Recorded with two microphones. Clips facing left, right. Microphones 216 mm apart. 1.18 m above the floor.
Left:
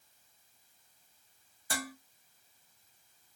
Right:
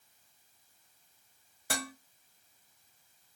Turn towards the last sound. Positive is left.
turn(degrees=-75)  # may be behind; listen again after turning